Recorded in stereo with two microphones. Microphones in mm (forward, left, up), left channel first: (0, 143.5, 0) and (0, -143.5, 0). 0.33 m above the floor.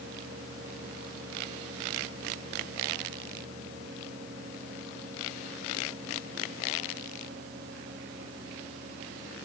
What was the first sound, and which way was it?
Only background noise.